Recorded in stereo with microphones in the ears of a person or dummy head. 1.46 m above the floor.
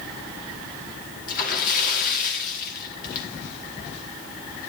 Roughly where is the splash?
Left.